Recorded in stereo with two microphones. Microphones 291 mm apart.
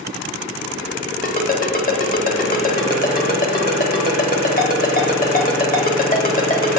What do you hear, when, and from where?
1.2 s a ringtone: 30° left (ahead or behind), 0.7 m